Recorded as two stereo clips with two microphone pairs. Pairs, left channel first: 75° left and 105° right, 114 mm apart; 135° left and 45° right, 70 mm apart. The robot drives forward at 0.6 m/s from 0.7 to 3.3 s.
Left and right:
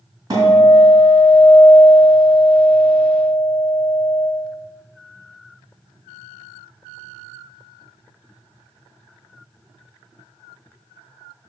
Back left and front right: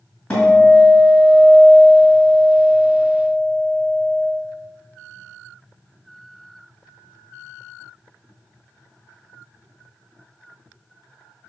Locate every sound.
0.3 s a guitar: 160° right, 3.5 m; by 4.3 s 165° right, 5 m